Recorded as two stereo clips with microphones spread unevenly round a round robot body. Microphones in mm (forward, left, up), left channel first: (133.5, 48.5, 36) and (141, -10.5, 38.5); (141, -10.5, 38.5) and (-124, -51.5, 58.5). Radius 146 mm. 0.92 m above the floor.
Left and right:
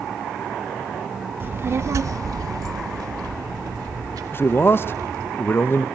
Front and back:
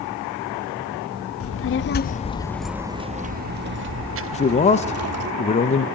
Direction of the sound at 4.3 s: 60° left.